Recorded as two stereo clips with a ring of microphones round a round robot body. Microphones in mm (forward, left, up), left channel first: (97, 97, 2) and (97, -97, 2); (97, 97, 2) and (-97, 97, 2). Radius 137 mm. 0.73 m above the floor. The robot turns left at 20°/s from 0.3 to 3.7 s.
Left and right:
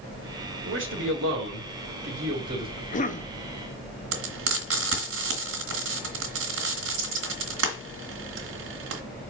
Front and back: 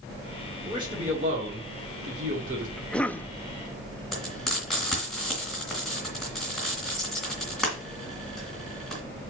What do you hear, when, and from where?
0.7 s a man speaking: 105° right, 2.5 m; by 2.7 s 145° right, 2.5 m
2.8 s a cough: 85° left, 0.7 m; by 3.3 s 75° left, 0.7 m
4.1 s frying: 90° right, 2 m